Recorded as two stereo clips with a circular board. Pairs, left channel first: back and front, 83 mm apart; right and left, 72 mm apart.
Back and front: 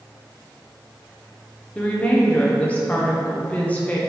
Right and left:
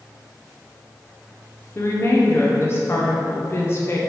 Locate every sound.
1.8 s a woman speaking: 120° right, 0.5 m